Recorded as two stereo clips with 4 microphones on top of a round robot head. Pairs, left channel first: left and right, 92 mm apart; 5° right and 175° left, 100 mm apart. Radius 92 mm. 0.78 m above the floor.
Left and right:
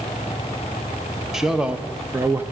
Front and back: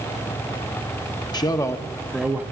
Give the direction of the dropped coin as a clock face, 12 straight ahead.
No dropped coin in this recording.